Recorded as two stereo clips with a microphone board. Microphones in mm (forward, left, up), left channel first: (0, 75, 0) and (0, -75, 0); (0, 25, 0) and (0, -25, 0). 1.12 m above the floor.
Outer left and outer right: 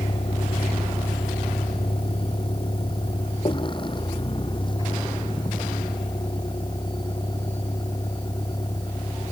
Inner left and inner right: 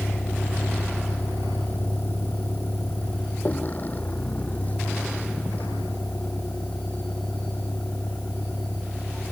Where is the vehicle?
40° left (ahead or behind); by 9.3 s 30° left (ahead or behind).